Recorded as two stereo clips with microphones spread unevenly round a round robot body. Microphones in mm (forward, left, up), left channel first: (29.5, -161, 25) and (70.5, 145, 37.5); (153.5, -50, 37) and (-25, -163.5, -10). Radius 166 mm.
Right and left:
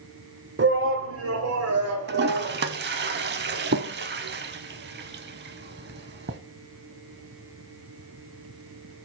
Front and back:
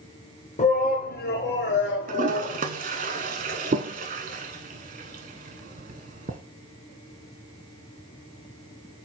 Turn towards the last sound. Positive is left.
turn(degrees=145)